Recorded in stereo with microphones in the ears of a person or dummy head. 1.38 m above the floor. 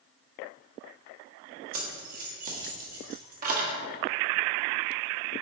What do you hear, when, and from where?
1.7 s keys jangling: 45° right (ahead or behind), 1.6 m